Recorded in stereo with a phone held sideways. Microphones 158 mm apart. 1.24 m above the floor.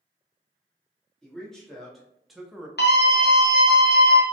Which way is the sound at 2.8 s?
85° left.